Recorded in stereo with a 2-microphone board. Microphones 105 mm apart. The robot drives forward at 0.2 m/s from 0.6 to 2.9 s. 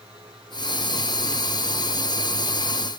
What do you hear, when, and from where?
Only background noise.